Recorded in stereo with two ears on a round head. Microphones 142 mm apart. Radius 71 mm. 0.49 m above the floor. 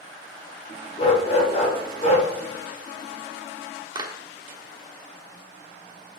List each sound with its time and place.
1.0 s a dog barking: 40° left (ahead or behind), 4 m; by 2.3 s 45° left (ahead or behind), 3.5 m
4.0 s a clap: 25° right (ahead or behind), 1.1 m